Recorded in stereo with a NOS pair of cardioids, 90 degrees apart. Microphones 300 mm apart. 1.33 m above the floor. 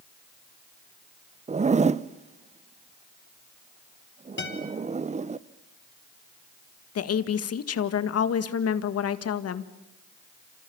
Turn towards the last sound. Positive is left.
turn(degrees=55)